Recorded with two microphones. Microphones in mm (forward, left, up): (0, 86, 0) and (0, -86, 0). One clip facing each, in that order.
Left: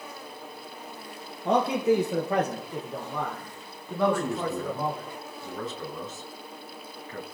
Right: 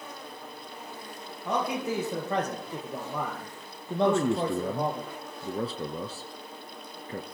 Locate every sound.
1.4 s a man speaking: 30° left (ahead or behind), 3 m; by 5.0 s 35° right (ahead or behind), 4 m
4.0 s a man speaking: 35° right (ahead or behind), 1.4 m